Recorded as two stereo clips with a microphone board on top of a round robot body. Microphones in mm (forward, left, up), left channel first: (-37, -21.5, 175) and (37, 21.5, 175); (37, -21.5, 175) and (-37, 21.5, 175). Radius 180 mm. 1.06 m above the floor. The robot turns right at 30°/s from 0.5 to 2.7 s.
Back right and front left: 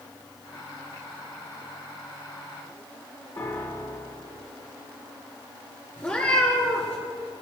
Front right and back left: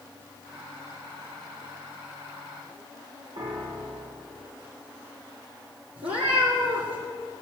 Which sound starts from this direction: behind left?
A cat meowing, at 6.0 s.